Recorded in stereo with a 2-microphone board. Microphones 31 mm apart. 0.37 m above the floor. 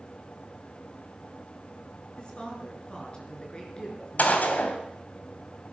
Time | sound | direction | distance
2.2 | a woman speaking | 30° left (ahead or behind) | 5.5 m
4.2 | a gunshot | 60° left (ahead or behind) | 2.5 m